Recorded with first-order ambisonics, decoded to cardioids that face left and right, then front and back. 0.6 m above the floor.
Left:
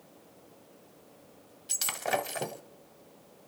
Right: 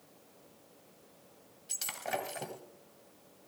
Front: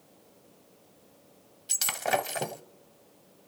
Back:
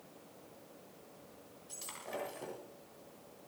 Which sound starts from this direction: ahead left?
Breaking glass, at 1.7 s.